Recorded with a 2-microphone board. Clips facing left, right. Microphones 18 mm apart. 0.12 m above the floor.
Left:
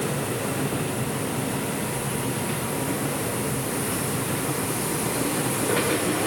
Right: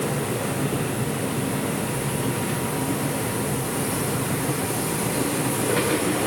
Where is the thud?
I don't hear a thud.